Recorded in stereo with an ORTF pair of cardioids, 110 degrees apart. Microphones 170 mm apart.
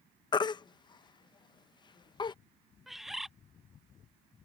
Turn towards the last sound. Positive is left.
turn(degrees=0)